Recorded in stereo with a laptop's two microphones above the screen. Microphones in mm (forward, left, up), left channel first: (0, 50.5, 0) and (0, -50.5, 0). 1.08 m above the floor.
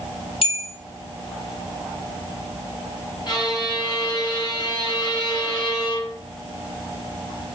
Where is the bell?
65° left (ahead or behind), 0.8 m.